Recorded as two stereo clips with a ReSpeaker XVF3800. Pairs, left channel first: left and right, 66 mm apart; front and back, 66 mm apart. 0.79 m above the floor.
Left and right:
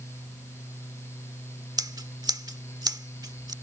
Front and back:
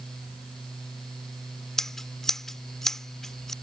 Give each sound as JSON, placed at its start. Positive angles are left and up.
{"t": 1.8, "sound": "scissors", "azimuth_deg": -85}